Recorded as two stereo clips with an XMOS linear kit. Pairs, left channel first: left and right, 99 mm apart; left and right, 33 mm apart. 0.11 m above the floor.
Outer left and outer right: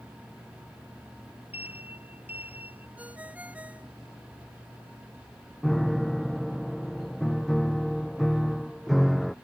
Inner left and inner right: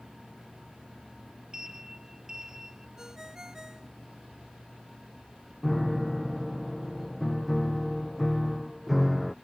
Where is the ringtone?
15° right (ahead or behind).